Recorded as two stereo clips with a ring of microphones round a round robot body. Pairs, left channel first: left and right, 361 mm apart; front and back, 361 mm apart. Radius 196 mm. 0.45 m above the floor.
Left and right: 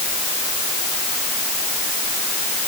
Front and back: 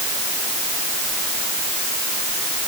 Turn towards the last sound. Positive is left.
No sound to turn to.